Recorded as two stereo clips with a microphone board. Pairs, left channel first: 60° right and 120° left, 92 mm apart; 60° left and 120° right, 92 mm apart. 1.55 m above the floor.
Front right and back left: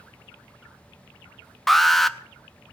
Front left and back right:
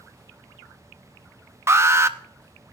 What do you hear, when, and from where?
1.7 s an alarm: 145° right, 0.6 m